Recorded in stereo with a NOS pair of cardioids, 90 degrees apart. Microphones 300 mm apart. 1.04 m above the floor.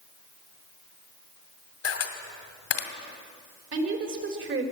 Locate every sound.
1.8 s a camera shutter: 55° left, 2 m
3.7 s a woman speaking: 45° right, 3.5 m